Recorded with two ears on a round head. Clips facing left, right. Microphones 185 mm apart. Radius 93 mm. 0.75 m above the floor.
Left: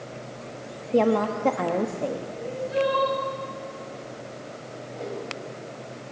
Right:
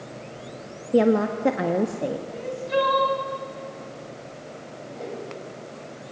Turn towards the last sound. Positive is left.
turn(degrees=0)  # may be behind; listen again after turning